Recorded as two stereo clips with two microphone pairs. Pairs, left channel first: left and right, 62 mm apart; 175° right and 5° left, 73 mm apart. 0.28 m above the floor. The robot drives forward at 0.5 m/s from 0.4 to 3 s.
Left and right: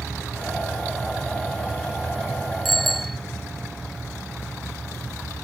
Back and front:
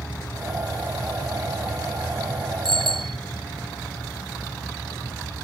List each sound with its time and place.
2.6 s a bicycle bell: straight ahead